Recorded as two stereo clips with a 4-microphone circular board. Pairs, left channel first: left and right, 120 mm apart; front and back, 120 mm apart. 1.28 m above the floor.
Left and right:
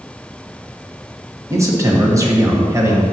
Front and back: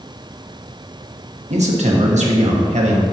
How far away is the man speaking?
About 1.3 m.